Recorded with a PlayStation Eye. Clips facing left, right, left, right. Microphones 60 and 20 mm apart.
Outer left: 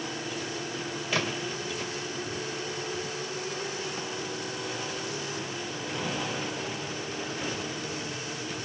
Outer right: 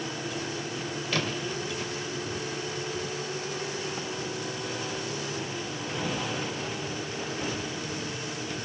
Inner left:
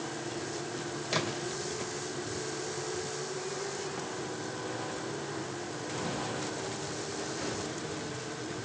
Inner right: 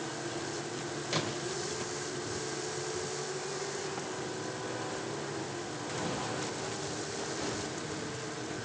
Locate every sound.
1.1 s a splash: 10° left (ahead or behind), 2 m